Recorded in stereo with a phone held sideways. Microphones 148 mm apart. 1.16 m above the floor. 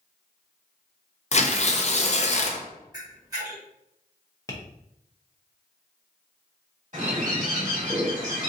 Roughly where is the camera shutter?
Right.